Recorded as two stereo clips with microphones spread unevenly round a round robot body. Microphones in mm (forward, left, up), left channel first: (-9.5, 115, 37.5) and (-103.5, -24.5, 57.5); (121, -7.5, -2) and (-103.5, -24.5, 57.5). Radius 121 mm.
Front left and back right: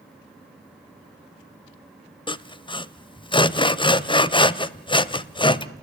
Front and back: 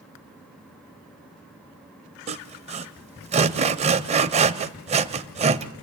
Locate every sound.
2.3 s sawing: 120° left, 0.9 m